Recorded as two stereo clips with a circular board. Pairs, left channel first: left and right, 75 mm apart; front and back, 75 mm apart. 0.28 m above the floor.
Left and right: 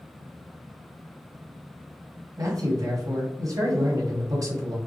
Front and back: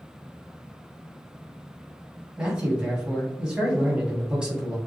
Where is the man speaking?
105° right, 2 m.